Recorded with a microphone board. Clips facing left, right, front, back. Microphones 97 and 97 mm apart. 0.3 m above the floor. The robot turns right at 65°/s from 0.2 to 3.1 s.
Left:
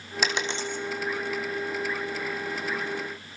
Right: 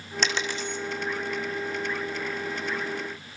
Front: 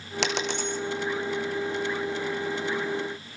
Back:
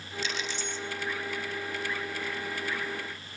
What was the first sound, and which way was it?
A dropped coin, 5° left.